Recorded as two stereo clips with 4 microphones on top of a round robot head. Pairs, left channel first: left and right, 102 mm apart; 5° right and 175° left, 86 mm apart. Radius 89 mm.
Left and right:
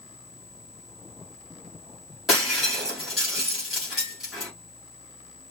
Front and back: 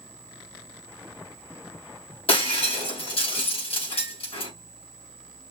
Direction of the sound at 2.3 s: Straight ahead.